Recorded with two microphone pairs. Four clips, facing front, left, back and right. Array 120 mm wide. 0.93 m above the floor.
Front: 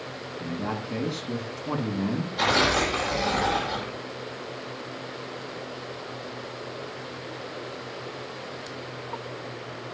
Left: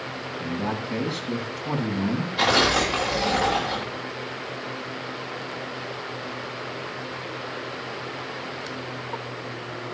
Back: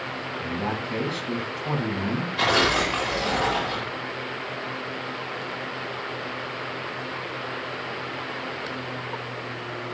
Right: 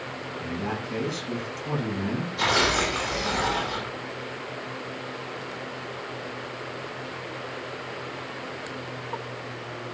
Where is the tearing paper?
125° left, 9 m.